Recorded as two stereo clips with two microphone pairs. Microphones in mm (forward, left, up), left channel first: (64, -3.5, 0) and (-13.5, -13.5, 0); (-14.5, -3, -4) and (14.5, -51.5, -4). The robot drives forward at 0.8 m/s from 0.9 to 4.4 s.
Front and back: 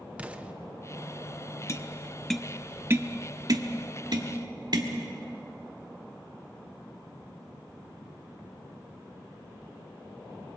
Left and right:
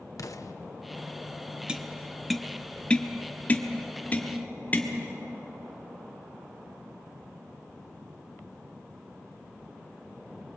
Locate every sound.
0.2 s an explosion: 110° left, 0.7 m
1.7 s tapping: 5° left, 0.9 m; by 4.9 s straight behind, 1.8 m